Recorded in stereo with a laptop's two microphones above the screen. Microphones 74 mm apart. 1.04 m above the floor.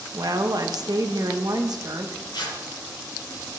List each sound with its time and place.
0.1 s a woman speaking: 55° right (ahead or behind), 1.2 m
2.3 s tearing paper: 75° left (ahead or behind), 2.5 m